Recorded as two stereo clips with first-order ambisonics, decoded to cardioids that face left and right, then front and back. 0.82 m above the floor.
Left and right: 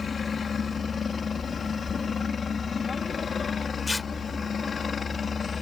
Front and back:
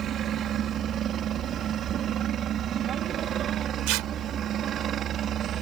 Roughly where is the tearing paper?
Behind.